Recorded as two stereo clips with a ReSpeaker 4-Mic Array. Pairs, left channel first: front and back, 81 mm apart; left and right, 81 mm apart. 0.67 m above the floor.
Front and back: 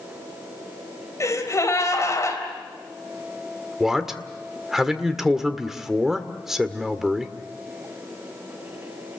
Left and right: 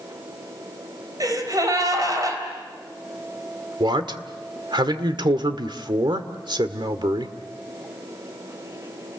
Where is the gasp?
50° right, 4 m.